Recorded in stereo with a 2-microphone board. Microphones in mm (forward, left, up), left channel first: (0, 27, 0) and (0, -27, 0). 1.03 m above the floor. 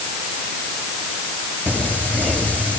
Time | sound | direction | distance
1.7 | singing | 25° left (ahead or behind) | 7.5 m